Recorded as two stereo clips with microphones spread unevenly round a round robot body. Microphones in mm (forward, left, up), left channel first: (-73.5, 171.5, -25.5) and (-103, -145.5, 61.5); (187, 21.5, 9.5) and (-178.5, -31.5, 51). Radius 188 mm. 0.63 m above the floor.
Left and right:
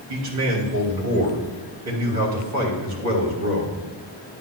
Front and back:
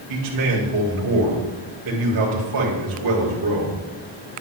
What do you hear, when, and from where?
0.1 s a man speaking: 140° right, 3.5 m